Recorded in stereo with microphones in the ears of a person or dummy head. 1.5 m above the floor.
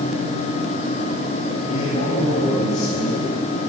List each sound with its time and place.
1.7 s a man speaking: 50° left (ahead or behind), 7.5 m; by 3.3 s 45° left (ahead or behind), 8.5 m